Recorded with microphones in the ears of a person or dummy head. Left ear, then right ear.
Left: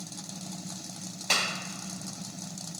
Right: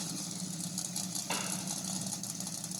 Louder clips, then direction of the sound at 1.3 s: Left 12 dB; 70° left (ahead or behind).